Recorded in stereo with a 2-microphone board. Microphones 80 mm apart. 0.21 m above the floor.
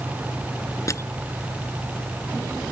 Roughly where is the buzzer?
I don't hear a buzzer.